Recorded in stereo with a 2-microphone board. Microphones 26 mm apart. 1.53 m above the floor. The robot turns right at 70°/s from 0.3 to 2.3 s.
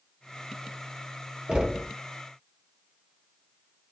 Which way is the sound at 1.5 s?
35° right (ahead or behind).